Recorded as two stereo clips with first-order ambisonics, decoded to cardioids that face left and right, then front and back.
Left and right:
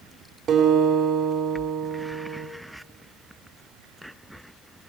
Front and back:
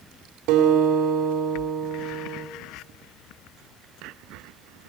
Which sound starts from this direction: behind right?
A guitar, at 0.5 s.